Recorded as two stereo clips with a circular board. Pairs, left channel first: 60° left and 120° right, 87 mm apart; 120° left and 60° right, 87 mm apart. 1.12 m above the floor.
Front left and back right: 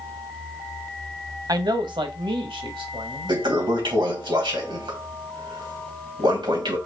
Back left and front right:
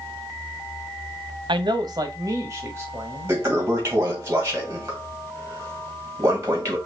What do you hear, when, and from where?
1.5 s a man speaking: 80° right, 0.8 m; by 3.4 s 120° right, 2 m
3.3 s a toilet flushing: 115° right, 2 m